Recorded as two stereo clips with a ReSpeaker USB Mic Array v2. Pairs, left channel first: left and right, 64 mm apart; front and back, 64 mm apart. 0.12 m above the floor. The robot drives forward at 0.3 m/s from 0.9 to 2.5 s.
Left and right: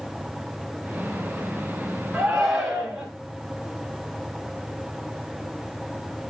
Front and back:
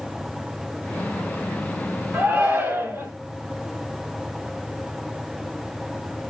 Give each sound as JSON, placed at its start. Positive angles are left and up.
{"t": 2.1, "sound": "a shout", "azimuth_deg": -160, "distance_m": 1.7}